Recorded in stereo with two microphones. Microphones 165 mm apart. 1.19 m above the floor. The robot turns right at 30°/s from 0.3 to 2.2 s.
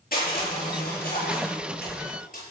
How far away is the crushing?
About 5.5 m.